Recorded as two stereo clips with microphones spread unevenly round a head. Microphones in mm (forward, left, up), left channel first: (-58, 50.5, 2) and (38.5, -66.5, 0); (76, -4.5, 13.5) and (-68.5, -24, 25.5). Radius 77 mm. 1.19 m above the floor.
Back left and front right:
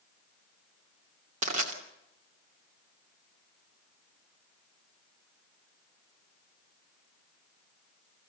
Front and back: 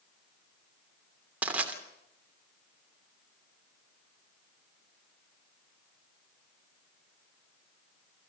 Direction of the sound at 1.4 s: 90° right.